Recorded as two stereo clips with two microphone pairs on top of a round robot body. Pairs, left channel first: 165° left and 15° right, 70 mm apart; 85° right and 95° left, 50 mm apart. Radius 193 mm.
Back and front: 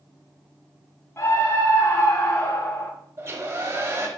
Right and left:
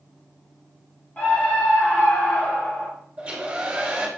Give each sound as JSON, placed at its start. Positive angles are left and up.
{"t": 1.2, "sound": "a scream", "azimuth_deg": -145, "distance_m": 2.5}
{"t": 3.2, "sound": "a hair dryer", "azimuth_deg": 30, "distance_m": 4.0}